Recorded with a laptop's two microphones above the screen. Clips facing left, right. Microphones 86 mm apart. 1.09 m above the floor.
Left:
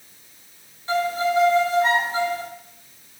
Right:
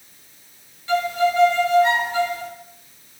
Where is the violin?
35° left (ahead or behind), 1.2 m.